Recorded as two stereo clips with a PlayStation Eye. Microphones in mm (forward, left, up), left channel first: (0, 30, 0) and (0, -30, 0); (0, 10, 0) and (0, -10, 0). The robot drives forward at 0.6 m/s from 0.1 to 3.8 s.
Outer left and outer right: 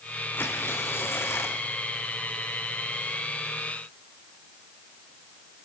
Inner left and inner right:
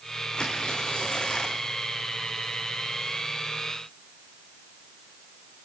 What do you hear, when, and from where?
0.3 s tearing paper: 40° left (ahead or behind), 4 m; by 1.6 s 50° left (ahead or behind), 3.5 m